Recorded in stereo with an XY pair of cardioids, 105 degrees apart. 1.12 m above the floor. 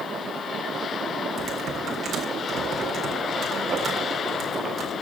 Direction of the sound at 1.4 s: 55° right.